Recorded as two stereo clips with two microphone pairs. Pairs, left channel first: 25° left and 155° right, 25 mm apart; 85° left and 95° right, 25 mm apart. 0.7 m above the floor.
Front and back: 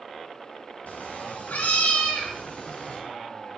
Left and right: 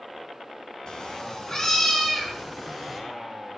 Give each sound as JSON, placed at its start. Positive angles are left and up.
{"t": 0.9, "sound": "a cat meowing", "azimuth_deg": 35, "distance_m": 3.5}